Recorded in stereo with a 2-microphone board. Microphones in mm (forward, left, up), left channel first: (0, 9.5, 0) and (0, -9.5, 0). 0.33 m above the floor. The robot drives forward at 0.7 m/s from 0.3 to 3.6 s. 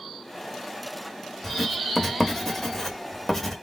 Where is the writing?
15° left (ahead or behind), 1.3 m; by 3.5 s 10° left (ahead or behind), 1.7 m.